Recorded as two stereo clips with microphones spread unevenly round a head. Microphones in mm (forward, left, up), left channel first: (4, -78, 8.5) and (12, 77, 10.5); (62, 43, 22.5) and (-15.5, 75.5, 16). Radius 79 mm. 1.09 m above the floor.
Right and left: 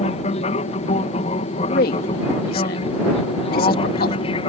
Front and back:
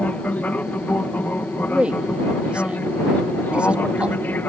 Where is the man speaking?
120° right.